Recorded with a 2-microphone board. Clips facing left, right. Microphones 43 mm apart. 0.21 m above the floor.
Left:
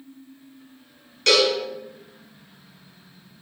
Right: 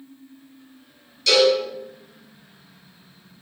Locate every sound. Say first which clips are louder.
1.3 s a cowbell: right 2 dB; 50° left (ahead or behind), 1.1 m